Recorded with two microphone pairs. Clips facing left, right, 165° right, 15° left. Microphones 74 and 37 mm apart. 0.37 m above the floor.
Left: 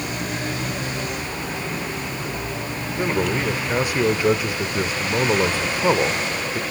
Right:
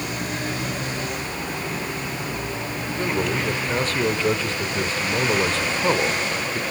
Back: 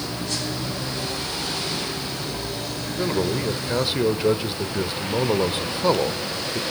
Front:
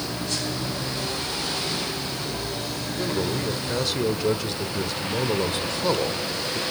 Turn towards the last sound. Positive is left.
turn(degrees=155)